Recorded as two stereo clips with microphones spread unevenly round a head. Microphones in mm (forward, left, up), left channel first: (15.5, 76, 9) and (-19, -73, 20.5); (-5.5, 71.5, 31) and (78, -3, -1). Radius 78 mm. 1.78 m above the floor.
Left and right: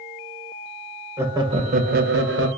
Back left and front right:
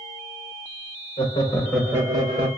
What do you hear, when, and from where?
1.2 s laughter: 175° right, 0.6 m; by 2.5 s 95° right, 0.7 m